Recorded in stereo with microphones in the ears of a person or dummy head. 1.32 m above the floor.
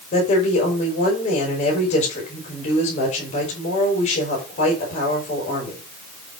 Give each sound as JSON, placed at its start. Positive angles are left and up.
{"t": 0.1, "sound": "a woman speaking", "side_deg": 40, "distance_m": 5.5}